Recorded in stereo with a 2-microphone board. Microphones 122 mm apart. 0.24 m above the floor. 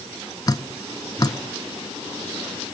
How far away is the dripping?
About 0.8 m.